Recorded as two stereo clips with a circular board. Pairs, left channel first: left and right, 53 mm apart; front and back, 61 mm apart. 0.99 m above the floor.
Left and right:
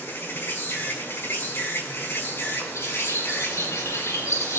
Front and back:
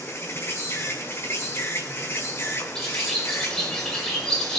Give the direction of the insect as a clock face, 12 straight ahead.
10 o'clock.